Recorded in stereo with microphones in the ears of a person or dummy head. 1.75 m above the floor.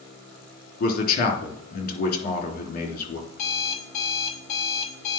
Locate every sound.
0.8 s a man speaking: 50° left (ahead or behind), 3 m
3.3 s an alarm clock: 40° left (ahead or behind), 2.5 m